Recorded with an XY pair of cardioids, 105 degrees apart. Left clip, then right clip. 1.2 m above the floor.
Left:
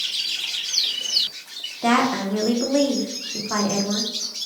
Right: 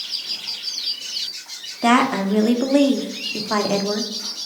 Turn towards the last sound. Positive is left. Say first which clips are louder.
# right 3 dB
turn(degrees=-30)